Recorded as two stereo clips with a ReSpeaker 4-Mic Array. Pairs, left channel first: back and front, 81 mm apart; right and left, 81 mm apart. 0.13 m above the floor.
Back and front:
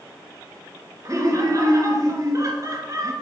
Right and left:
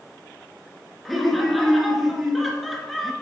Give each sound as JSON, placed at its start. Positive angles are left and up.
{"t": 1.1, "sound": "laughter", "azimuth_deg": 0, "distance_m": 1.5}